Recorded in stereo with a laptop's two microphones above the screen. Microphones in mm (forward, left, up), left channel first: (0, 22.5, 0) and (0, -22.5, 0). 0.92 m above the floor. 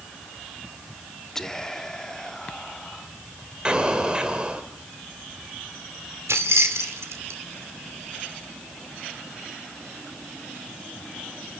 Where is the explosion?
20° right (ahead or behind), 1.7 m.